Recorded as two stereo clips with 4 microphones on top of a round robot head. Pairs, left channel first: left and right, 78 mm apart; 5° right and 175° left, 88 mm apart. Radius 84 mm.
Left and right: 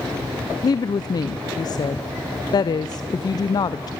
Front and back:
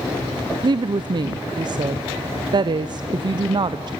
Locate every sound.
0.6 s a woman speaking: 130° left, 0.6 m